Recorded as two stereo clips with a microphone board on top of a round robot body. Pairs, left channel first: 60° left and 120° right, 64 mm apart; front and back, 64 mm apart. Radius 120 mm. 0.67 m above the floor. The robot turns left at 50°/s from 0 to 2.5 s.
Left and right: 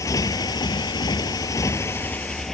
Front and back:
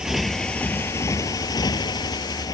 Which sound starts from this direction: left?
A motorcycle, at 0.0 s.